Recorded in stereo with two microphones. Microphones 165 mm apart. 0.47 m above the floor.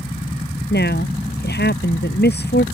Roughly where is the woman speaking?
Left.